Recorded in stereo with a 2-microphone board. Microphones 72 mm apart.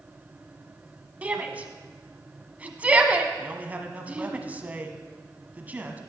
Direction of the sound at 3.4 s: 20° right (ahead or behind).